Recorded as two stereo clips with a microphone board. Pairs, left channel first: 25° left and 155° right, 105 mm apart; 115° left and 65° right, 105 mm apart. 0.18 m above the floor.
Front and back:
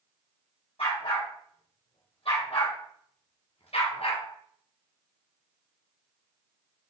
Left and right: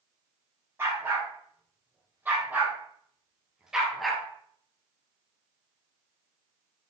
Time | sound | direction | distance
0.8 | a dog barking | straight ahead | 4.5 m